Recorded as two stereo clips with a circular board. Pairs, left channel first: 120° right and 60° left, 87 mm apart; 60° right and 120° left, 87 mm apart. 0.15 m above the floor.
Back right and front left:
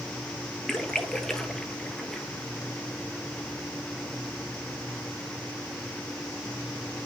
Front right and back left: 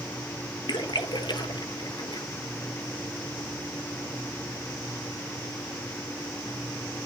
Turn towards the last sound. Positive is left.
turn(degrees=-35)